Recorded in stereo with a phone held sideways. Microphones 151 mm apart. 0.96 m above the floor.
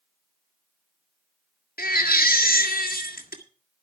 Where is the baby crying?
85° left, 2 m.